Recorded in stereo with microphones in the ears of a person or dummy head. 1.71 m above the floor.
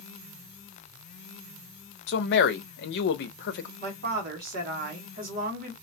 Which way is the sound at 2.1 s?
75° left (ahead or behind).